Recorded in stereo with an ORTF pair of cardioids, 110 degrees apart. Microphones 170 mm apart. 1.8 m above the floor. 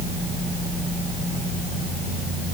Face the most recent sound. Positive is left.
No sound to turn to.